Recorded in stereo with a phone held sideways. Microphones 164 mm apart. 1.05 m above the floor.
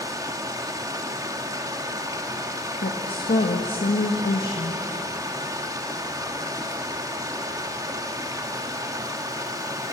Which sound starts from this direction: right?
Running water, at 0.0 s.